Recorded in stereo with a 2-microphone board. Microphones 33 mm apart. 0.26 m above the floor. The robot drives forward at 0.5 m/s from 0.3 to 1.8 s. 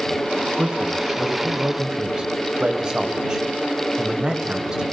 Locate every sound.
0.6 s a man speaking: 20° right (ahead or behind), 1.5 m